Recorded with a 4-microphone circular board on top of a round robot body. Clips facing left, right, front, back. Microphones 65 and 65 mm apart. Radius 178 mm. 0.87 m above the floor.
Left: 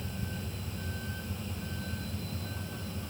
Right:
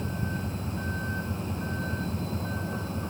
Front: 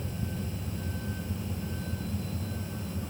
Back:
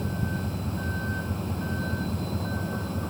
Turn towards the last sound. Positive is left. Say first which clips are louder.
# right 7 dB, back 6 dB
turn(degrees=-145)